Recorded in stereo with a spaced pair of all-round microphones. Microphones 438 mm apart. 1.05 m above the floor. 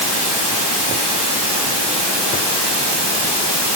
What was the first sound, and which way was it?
Running water, 80° left.